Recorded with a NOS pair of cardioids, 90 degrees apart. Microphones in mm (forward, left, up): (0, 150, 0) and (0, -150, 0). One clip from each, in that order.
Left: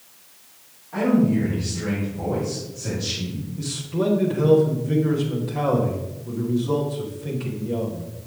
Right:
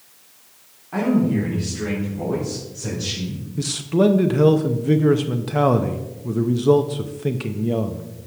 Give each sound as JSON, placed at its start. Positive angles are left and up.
{"t": 0.9, "sound": "a man speaking", "azimuth_deg": -60, "distance_m": 3.0}
{"t": 3.6, "sound": "a man speaking", "azimuth_deg": -60, "distance_m": 0.8}